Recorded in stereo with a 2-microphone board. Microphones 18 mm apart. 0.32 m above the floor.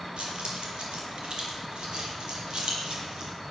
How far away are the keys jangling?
About 6.5 m.